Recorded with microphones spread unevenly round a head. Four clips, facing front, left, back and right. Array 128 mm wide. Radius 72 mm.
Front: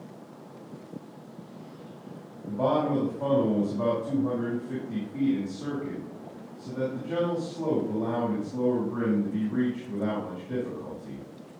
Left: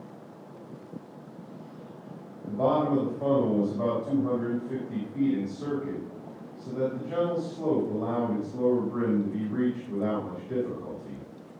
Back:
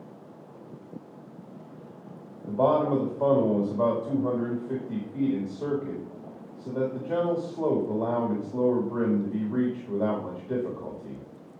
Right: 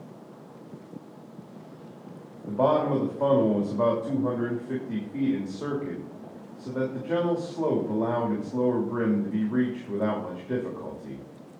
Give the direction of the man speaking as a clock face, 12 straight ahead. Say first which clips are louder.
Right 2 dB, back 3 dB; 4 o'clock.